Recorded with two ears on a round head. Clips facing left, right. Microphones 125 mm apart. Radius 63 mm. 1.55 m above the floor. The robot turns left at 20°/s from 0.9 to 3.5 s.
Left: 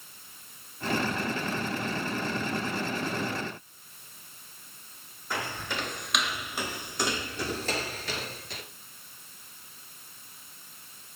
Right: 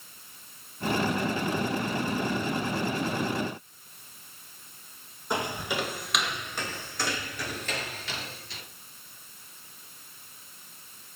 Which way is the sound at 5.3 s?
20° right (ahead or behind).